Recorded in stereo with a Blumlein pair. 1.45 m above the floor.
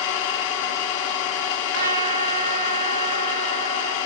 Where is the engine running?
45° left, 0.8 m.